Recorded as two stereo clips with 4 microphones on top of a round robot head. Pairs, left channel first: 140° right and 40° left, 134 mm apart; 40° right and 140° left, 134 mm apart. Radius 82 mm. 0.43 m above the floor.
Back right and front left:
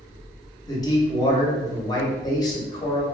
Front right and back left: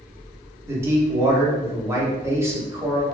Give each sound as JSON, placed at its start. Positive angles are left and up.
{"t": 0.7, "sound": "a man speaking", "azimuth_deg": -170, "distance_m": 0.8}